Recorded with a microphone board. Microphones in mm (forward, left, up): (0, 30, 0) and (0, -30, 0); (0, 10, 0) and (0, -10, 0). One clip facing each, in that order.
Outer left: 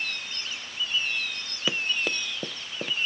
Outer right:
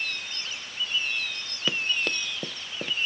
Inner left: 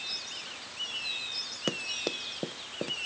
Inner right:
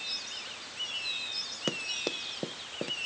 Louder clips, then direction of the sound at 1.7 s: Even, inner left 1 dB; 5° left (ahead or behind).